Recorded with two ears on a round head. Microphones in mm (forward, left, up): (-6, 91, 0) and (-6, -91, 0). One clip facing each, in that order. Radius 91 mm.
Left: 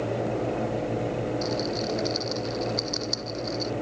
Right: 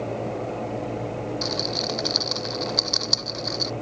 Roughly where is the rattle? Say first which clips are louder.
Left 1 dB; right.